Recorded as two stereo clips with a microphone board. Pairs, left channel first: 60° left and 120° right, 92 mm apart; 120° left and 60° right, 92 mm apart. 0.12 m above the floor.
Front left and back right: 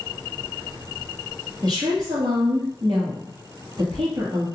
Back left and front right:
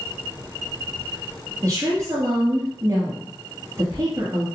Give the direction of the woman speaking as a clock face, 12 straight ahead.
4 o'clock.